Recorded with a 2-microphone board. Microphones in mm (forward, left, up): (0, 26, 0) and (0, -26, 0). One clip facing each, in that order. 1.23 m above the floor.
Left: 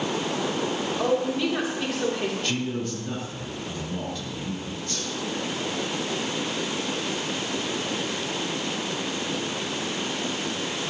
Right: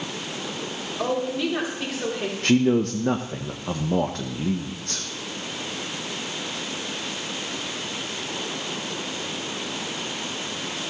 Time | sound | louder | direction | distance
1.0 | a woman speaking | even | centre (ahead or behind) | 3 m
2.4 | a man speaking | right 9 dB | 65° right (ahead or behind) | 0.7 m